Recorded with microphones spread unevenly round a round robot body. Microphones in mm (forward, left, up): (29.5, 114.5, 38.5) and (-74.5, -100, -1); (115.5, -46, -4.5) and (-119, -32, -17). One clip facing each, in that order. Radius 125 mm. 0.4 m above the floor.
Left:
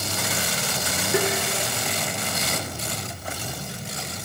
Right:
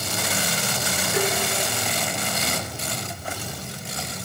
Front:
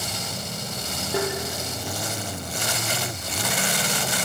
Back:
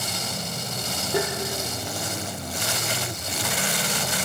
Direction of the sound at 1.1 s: 85° left.